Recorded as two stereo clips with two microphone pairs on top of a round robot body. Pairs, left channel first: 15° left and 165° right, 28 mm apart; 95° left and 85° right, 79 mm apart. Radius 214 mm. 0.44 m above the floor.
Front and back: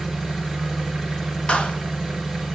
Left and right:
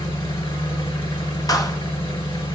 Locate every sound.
0.0 s an engine running: 95° left, 2.5 m
1.5 s a clap: 60° left, 1.6 m